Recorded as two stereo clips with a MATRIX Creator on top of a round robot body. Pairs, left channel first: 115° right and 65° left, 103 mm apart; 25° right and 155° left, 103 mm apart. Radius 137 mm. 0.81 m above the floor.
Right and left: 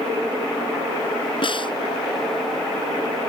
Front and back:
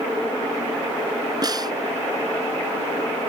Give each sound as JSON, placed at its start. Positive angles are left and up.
{"t": 1.4, "sound": "a snare drum", "azimuth_deg": -150}